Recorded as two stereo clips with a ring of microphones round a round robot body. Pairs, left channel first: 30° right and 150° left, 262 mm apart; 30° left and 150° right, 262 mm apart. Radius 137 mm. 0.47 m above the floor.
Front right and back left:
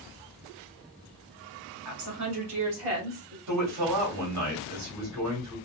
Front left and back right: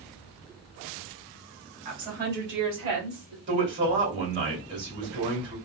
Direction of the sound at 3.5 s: 165° left.